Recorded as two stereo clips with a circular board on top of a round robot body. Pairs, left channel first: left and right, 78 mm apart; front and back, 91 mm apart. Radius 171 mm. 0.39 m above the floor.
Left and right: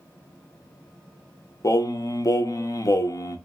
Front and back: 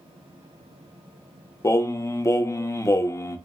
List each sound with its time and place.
1.6 s singing: 50° left, 0.8 m